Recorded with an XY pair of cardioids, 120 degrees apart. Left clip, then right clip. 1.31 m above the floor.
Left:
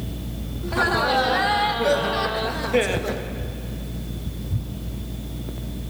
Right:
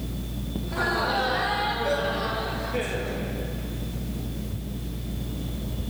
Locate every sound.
0.6 s laughter: 40° left, 3 m; by 3.2 s 65° left, 1.8 m